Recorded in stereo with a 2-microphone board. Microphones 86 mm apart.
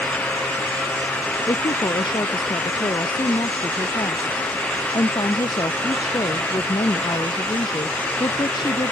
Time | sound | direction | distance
1.5 | a woman speaking | 60° left (ahead or behind) | ?